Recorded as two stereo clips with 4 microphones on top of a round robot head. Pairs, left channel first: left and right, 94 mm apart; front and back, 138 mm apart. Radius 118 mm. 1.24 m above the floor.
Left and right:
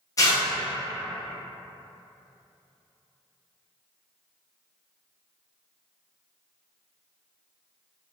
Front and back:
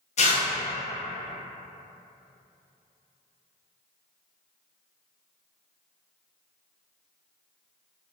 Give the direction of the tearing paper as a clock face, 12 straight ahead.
11 o'clock.